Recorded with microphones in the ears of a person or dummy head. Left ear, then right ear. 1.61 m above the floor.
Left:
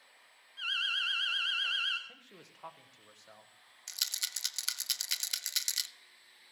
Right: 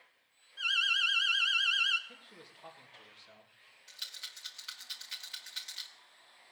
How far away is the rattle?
About 0.6 m.